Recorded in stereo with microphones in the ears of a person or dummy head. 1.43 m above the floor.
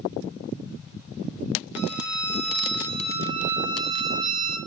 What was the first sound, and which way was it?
A violin, 65° right (ahead or behind).